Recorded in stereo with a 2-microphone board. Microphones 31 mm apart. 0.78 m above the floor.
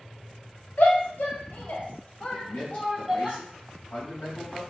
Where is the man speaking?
50° left (ahead or behind), 1.3 m.